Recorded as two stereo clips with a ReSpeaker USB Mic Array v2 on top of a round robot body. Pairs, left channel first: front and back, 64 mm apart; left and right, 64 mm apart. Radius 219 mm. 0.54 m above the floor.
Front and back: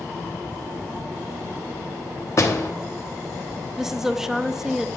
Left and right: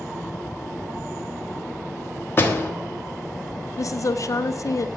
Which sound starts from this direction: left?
A woman speaking, at 3.8 s.